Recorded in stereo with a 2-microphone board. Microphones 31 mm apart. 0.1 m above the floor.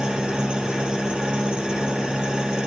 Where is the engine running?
30° right (ahead or behind), 0.9 m.